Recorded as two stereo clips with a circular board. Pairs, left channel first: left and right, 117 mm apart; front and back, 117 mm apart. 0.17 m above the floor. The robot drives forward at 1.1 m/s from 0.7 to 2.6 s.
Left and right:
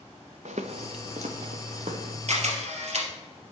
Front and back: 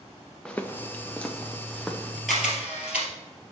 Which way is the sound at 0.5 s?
85° right.